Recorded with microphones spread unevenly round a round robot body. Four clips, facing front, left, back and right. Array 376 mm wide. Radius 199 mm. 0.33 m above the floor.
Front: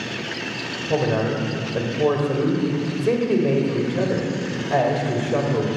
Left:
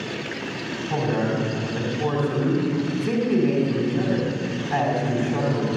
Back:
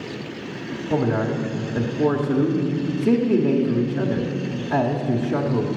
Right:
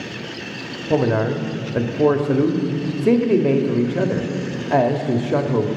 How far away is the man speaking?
About 1.6 m.